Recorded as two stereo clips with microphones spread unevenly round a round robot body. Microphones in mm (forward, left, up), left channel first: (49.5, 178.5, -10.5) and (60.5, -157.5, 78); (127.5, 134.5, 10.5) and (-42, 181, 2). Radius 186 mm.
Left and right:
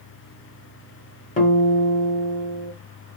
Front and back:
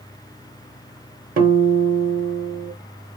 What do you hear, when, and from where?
1.4 s a guitar: 145° left, 0.8 m